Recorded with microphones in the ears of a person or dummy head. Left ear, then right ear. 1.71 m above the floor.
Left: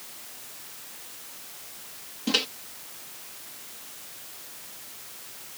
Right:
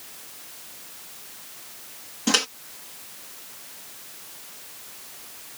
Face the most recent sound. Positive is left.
turn(degrees=-45)  # may be behind; listen again after turning